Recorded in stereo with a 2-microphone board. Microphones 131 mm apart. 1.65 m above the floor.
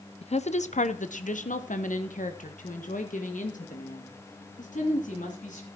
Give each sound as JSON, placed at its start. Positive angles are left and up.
{"t": 0.2, "sound": "a woman speaking", "side_deg": 50, "distance_m": 0.7}